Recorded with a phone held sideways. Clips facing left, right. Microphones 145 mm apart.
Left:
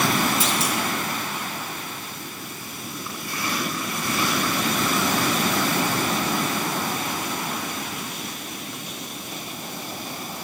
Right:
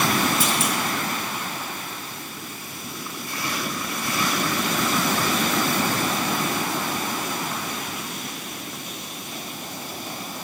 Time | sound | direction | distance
0.4 | a clunk | 50° right (ahead or behind) | 1.4 m